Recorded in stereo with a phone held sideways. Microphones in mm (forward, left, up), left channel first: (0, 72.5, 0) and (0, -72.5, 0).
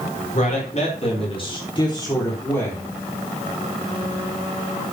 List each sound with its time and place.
0.3 s a man speaking: 55° left (ahead or behind), 4 m; by 2.9 s 10° left (ahead or behind), 4 m